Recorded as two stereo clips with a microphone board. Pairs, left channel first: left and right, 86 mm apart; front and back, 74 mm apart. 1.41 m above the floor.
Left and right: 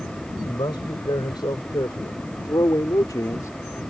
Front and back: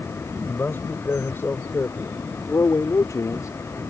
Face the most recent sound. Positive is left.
turn(degrees=35)